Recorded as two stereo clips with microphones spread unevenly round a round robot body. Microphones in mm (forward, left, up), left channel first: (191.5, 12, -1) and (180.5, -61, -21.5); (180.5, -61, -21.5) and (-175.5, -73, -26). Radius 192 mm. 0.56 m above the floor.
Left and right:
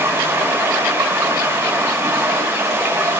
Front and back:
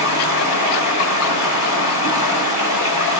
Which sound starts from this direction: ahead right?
Running water, at 0.0 s.